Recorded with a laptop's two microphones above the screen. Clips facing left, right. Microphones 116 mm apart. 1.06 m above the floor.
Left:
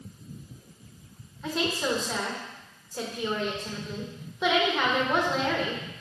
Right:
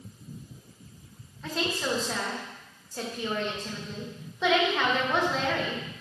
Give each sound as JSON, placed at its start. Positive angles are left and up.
{"t": 1.4, "sound": "a woman speaking", "side_deg": 5, "distance_m": 1.2}